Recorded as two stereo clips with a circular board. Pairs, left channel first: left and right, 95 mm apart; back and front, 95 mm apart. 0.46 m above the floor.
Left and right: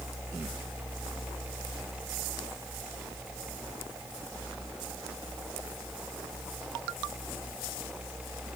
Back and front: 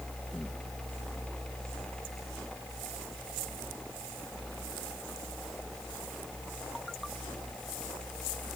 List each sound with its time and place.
Only background noise.